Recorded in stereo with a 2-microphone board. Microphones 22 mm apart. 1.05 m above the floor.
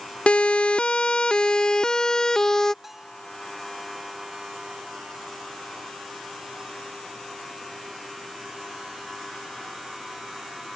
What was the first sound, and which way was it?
A siren, 70° left (ahead or behind).